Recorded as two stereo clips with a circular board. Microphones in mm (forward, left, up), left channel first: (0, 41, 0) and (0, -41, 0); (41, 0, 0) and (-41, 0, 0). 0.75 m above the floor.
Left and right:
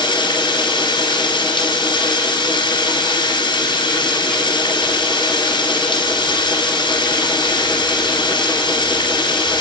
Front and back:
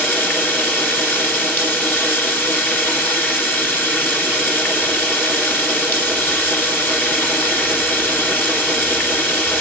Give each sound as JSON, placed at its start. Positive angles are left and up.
{"t": 0.0, "sound": "running water", "azimuth_deg": 70, "distance_m": 2.5}